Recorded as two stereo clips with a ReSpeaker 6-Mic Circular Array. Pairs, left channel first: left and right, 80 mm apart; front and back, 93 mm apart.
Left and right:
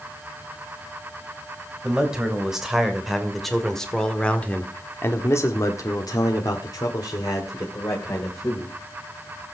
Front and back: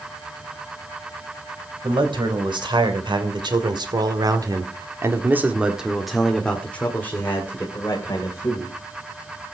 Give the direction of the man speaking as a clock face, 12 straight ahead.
6 o'clock.